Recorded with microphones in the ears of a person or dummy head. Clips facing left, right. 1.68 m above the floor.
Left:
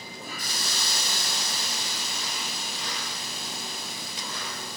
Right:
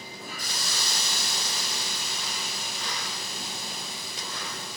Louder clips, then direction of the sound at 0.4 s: Even; 50° left (ahead or behind).